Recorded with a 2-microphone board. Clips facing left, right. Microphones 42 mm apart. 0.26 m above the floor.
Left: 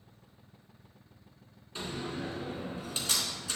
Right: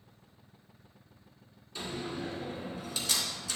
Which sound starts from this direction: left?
A door slam, at 1.8 s.